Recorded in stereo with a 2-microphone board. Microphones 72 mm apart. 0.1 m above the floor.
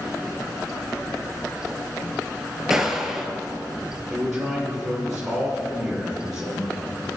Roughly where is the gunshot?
Centre.